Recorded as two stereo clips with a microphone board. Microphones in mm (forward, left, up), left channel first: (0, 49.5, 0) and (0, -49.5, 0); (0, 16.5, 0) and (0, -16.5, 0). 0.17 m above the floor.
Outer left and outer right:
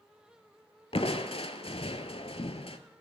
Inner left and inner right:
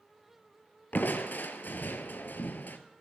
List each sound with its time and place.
0.9 s crushing: 65° left (ahead or behind), 0.6 m